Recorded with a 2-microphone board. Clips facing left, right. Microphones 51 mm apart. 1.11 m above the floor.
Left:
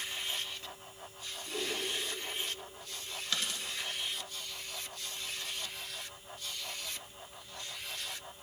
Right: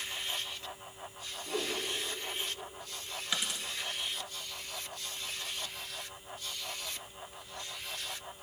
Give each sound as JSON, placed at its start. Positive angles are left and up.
{"t": 1.5, "sound": "a whoosh", "side_deg": -65, "distance_m": 2.0}
{"t": 3.3, "sound": "a dropped coin", "side_deg": -15, "distance_m": 1.1}